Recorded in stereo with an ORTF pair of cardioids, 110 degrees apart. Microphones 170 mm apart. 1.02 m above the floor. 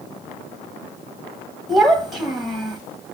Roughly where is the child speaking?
Ahead.